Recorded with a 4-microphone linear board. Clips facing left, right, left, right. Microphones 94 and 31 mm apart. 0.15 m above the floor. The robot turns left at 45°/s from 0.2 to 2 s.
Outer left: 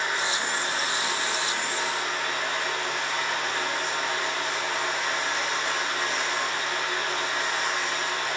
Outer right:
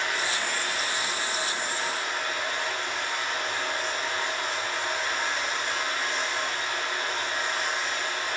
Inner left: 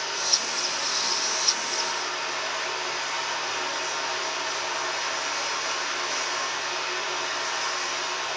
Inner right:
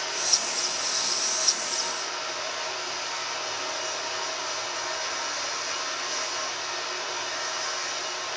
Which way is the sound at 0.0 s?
165° left.